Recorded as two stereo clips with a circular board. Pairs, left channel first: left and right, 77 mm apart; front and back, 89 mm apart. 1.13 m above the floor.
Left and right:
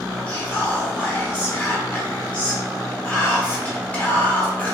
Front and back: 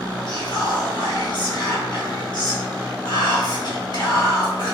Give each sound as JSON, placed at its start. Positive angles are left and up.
{"t": 0.3, "sound": "whispering", "azimuth_deg": 20, "distance_m": 1.3}